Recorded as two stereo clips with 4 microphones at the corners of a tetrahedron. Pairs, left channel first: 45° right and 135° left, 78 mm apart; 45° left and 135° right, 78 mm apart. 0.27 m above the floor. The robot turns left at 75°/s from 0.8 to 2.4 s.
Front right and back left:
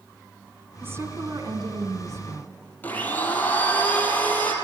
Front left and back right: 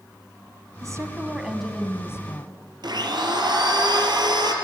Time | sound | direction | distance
0.8 | a woman speaking | 165° right | 2 m
2.8 | a blender | 115° right | 4.5 m